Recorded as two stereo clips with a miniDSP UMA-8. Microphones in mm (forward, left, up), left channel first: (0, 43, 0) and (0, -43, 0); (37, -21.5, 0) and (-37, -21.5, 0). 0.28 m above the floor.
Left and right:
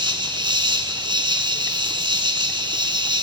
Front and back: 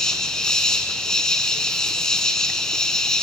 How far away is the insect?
About 1.8 m.